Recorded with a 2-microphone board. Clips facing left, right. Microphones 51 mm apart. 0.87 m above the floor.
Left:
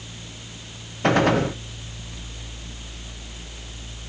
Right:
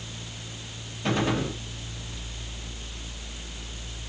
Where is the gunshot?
65° left (ahead or behind), 0.5 m.